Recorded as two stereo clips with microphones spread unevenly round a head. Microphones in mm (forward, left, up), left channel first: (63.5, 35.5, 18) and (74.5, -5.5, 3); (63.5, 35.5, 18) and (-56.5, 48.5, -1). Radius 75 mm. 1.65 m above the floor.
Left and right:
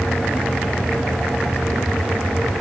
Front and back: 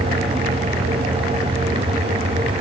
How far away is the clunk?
I don't hear a clunk.